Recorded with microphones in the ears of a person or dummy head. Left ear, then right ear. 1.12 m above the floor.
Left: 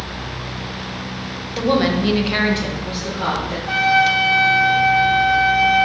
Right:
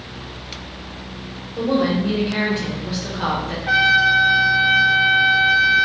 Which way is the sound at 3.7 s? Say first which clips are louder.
Right 1 dB; 55° right (ahead or behind).